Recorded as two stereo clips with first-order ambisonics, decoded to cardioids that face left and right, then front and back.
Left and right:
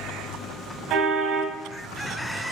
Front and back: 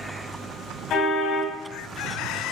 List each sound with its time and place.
0.9 s a car horn: 50° right, 3.5 m